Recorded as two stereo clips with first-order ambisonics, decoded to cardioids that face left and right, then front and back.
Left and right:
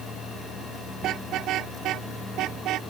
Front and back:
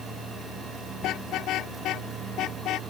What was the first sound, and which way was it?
A car horn, 40° right.